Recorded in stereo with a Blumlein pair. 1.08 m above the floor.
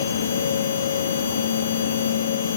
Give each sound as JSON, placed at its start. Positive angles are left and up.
{"t": 0.0, "sound": "a machine running", "azimuth_deg": 70, "distance_m": 1.0}